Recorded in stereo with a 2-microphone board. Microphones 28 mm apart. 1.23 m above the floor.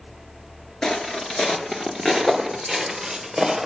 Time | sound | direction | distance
0.8 | footsteps | 30° left (ahead or behind) | 1.3 m